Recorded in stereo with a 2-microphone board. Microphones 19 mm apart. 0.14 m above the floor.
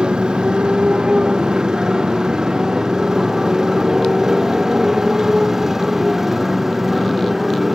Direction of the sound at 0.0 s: 45° right (ahead or behind).